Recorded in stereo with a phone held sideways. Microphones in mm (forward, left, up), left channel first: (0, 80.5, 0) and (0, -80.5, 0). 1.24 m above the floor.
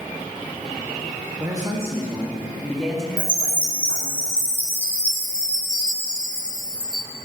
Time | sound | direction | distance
1.4 | a man speaking | 25° right (ahead or behind) | 1.9 m
3.2 | a chime | 5° right (ahead or behind) | 1.9 m